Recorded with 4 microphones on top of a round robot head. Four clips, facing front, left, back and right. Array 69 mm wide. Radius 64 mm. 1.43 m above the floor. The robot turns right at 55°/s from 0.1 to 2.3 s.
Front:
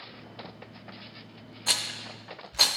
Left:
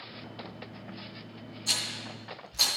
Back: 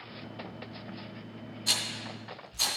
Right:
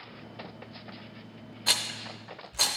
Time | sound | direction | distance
1.7 | a rattle | 55° right | 0.8 m